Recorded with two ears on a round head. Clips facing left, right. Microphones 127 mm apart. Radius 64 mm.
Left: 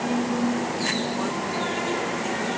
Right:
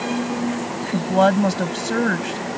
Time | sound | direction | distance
0.9 | a woman speaking | 80° right | ?